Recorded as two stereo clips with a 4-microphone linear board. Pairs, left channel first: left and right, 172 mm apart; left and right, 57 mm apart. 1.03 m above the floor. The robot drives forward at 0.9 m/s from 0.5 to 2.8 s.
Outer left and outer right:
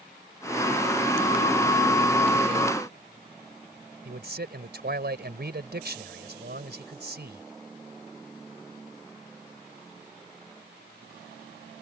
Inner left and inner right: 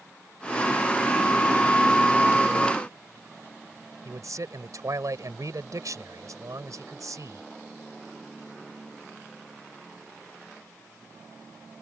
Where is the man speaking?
70° right (ahead or behind).